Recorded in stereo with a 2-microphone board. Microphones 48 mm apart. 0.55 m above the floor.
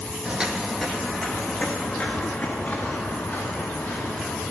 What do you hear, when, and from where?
0.2 s footsteps: 25° right (ahead or behind), 1.2 m; by 4.4 s 35° left (ahead or behind), 4.5 m